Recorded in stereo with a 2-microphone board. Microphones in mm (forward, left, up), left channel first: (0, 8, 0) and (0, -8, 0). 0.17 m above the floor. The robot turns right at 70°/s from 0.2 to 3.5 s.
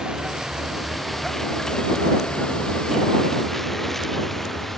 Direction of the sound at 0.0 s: 55° right (ahead or behind).